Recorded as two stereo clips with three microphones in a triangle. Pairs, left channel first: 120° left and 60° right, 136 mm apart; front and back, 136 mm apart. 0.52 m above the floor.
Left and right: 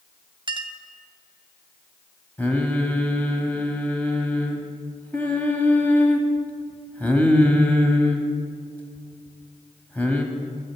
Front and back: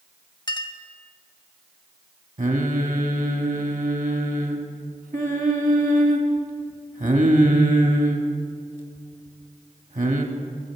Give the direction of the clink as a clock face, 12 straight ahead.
1 o'clock.